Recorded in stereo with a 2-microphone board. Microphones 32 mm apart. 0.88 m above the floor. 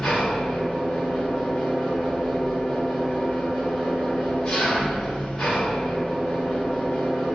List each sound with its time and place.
0.0 s an engine running: 25° left (ahead or behind), 1.7 m